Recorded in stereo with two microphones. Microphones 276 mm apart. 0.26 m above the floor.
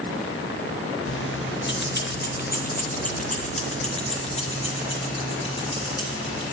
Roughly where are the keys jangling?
Left.